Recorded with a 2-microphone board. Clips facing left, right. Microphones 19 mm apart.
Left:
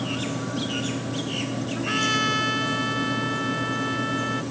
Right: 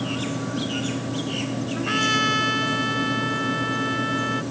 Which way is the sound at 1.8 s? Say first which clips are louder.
Right 2 dB; 10° right (ahead or behind).